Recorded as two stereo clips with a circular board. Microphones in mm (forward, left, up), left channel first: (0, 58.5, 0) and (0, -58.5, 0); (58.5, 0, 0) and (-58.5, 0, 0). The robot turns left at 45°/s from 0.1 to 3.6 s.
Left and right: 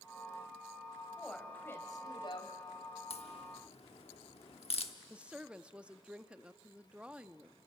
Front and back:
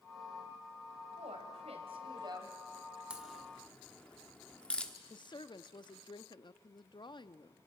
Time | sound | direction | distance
1.2 | a woman speaking | 175° right | 3 m
3.1 | a crack | 100° left | 1.2 m
5.1 | a woman speaking | 15° right | 0.6 m